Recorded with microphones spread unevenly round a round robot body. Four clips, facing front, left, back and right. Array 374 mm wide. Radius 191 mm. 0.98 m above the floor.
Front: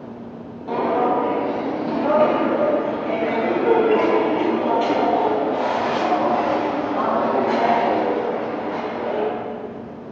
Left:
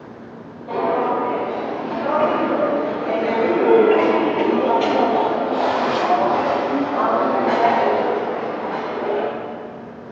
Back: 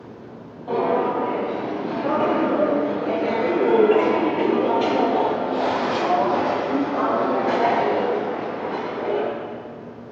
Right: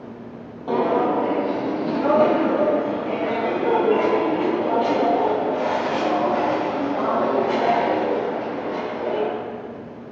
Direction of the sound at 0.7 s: 80° right.